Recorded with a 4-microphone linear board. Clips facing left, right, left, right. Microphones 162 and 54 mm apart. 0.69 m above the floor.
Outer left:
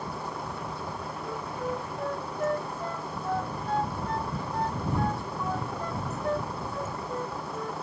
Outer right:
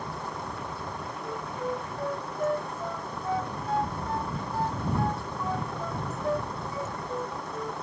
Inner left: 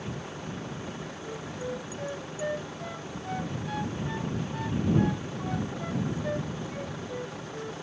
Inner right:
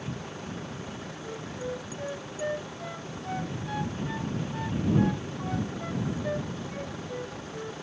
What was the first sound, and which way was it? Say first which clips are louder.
A vehicle: outer left 1 dB, even; 5° left (ahead or behind).